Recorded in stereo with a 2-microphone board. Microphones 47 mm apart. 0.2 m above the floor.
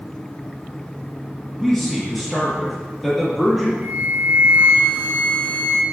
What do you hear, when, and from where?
1.6 s a man speaking: 5° left (ahead or behind), 4.5 m
3.8 s a flute: 55° right (ahead or behind), 1.4 m